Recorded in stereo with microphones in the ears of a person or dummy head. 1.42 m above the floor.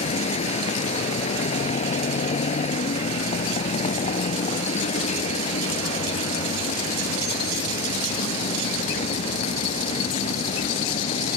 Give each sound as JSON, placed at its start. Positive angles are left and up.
{"t": 0.0, "sound": "a vehicle", "side_deg": 30}